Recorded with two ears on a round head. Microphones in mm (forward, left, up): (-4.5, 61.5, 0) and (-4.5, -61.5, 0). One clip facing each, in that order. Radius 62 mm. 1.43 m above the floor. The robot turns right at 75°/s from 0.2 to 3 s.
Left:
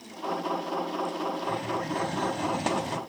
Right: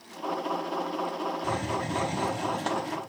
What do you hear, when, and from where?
1.4 s a hiss: 75° right, 0.9 m; by 3.0 s 40° left, 0.9 m